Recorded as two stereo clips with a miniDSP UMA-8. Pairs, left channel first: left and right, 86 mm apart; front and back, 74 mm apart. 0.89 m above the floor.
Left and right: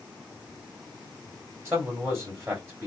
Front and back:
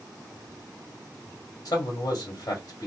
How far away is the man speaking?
About 1.7 m.